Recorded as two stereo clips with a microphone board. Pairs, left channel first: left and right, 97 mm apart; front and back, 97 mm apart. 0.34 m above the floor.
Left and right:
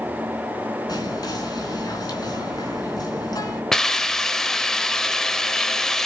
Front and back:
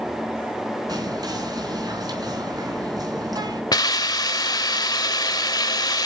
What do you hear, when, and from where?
0.9 s whispering: 135° left, 3.5 m
3.7 s a hiss: 5° left, 0.9 m